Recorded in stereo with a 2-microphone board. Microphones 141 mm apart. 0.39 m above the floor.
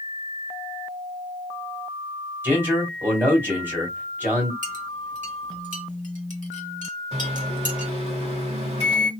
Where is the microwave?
45° right (ahead or behind), 1.4 m.